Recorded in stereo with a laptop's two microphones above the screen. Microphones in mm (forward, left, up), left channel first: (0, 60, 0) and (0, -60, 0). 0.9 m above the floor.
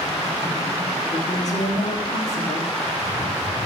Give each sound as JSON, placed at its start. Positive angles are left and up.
{"t": 1.1, "sound": "a woman speaking", "side_deg": 70, "distance_m": 1.3}